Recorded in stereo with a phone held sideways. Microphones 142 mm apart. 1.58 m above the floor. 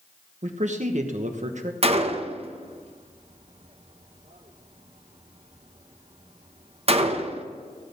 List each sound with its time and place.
0.4 s a man speaking: 55° right (ahead or behind), 1.2 m
1.8 s a gunshot: 45° right (ahead or behind), 0.9 m